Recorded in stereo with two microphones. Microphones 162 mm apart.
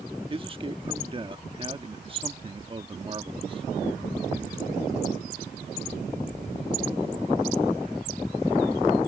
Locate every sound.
0.3 s a man speaking: 30° right (ahead or behind)